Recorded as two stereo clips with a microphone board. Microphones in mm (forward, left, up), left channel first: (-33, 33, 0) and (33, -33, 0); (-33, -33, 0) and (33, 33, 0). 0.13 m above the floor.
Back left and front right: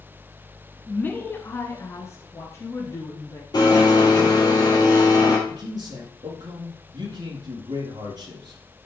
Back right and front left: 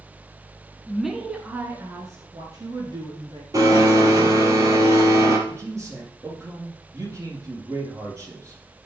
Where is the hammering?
I don't hear hammering.